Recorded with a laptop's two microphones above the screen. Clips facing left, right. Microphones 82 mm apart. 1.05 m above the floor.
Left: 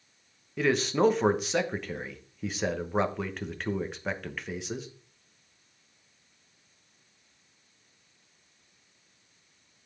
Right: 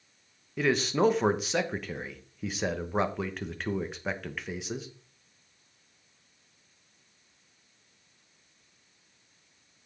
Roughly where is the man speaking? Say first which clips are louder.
Left 1 dB; centre.